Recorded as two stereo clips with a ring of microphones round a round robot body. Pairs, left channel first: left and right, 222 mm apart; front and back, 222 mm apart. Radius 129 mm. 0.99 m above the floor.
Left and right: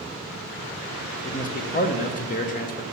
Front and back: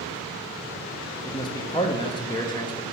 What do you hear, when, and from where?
1.2 s a man speaking: 60° left, 0.8 m